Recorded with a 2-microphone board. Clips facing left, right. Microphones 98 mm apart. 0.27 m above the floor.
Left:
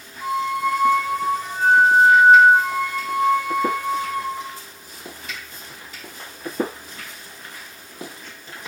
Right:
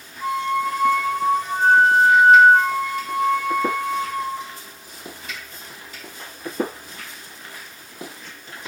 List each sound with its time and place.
0.2 s a flute: 10° left (ahead or behind), 2 m